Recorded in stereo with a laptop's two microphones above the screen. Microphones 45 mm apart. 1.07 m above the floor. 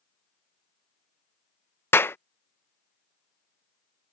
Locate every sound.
1.9 s a clap: 60° left (ahead or behind)